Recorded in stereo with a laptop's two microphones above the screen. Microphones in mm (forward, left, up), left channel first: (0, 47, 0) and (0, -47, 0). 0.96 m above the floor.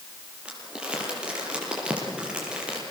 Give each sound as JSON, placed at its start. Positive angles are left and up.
{"t": 0.5, "sound": "crumpling", "side_deg": -10, "distance_m": 6.5}